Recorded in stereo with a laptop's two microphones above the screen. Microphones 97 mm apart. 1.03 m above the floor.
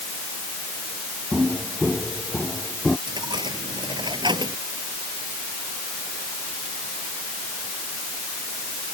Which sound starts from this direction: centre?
Footsteps, at 1.3 s.